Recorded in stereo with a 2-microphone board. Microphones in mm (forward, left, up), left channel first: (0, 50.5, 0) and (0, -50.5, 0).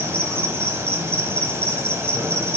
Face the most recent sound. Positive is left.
turn(degrees=-20)  # may be behind; listen again after turning